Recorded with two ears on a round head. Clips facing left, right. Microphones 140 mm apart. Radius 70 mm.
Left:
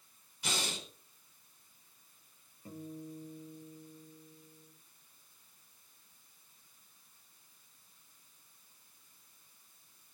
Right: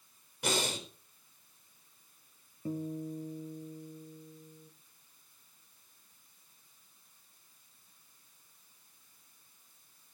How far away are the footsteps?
I don't hear footsteps.